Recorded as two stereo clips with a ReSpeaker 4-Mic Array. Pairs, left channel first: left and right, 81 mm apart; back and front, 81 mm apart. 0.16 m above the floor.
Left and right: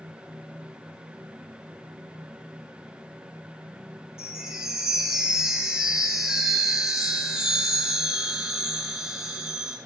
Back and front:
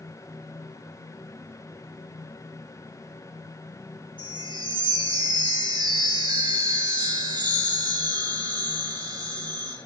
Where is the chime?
10° right, 4 m.